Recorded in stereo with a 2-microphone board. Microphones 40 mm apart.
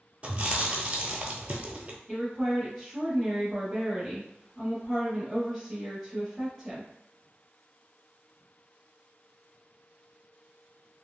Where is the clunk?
I don't hear a clunk.